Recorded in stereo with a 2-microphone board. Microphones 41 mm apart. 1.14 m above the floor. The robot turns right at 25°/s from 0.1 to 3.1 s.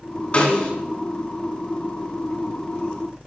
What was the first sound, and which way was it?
A snare drum, 30° left (ahead or behind).